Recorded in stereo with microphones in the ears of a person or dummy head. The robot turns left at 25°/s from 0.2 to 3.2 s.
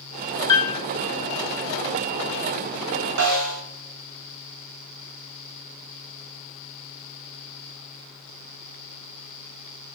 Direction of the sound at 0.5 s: 25° left (ahead or behind).